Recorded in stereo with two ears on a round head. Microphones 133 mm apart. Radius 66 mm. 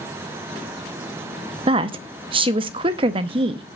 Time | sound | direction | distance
1.7 | a woman speaking | 35° right (ahead or behind) | 0.7 m